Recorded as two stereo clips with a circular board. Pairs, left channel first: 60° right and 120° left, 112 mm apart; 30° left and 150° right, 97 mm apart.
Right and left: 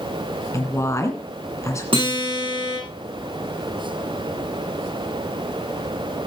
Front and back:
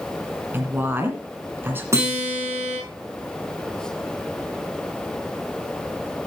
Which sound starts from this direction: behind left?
A guitar, at 1.9 s.